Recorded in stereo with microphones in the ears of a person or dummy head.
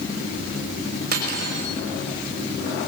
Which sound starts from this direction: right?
Cutlery clinking, at 1.1 s.